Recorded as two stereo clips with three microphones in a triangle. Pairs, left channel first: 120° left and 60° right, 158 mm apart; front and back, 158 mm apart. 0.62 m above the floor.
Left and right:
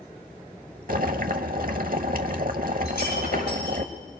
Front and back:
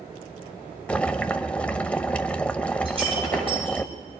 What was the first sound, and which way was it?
Boiling, 80° right.